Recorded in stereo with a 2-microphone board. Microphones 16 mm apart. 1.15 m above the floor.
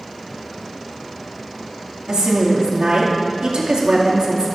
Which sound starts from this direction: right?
A woman speaking, at 2.1 s.